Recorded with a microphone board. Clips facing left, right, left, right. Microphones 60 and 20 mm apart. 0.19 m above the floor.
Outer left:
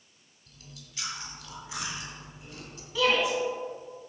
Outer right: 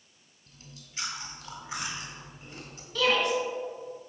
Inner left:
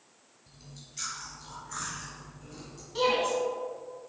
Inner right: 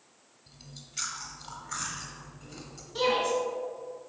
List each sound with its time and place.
0.5 s chewing: 30° right (ahead or behind), 1.6 m
3.0 s a shout: 10° left (ahead or behind), 1.7 m